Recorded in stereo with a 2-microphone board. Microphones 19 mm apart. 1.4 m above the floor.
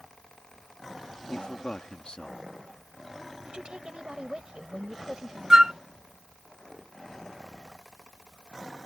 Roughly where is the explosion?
No explosion in this recording.